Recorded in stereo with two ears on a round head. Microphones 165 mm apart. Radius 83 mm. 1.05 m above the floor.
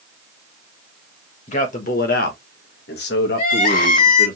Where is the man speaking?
40° left (ahead or behind), 1.4 m; by 4.3 s 50° left (ahead or behind), 2 m.